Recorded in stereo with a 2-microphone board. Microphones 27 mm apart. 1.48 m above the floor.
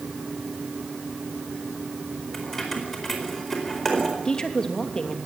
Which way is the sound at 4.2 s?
30° left (ahead or behind).